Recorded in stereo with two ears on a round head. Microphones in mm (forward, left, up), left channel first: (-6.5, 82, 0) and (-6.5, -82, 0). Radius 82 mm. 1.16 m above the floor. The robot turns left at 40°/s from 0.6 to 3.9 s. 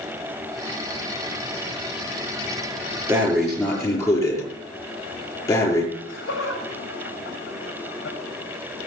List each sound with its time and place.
3.1 s breathing: 165° right, 6 m; by 5.8 s 160° left, 6 m
5.9 s laughter: 75° left (ahead or behind), 7 m